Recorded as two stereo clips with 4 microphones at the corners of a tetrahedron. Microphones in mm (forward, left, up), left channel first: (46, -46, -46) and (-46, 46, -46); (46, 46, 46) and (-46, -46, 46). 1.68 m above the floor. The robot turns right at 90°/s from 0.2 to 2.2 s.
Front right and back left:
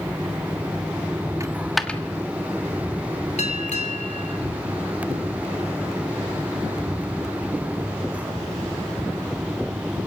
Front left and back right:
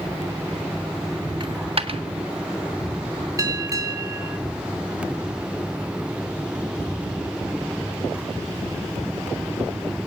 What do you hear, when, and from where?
1.4 s a dropped coin: 170° right, 1.5 m; by 2.0 s 115° right, 1.5 m
3.4 s a bell: 70° right, 3 m